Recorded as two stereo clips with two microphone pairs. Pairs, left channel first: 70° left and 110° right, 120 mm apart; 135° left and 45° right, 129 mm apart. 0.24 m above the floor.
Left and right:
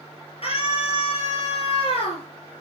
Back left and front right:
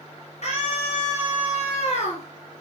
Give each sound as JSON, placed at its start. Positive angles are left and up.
{"t": 0.4, "sound": "a scream", "azimuth_deg": 105, "distance_m": 4.0}